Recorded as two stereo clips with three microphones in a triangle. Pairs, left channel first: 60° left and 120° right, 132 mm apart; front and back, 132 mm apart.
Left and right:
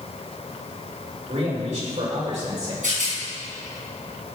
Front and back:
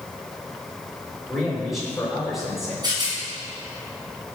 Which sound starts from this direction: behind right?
A rattle, at 2.8 s.